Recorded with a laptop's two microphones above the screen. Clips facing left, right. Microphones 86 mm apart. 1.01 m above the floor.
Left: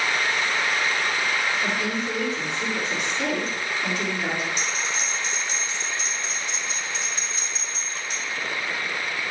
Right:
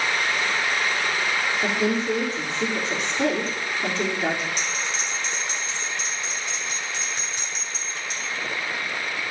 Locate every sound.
1.6 s a woman speaking: 35° right (ahead or behind), 3 m
4.6 s a bell: 70° right (ahead or behind), 3 m